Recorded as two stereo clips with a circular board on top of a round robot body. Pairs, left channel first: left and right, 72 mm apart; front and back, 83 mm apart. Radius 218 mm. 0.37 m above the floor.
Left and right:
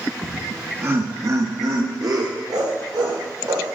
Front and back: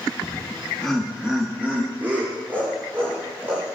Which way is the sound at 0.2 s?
30° right.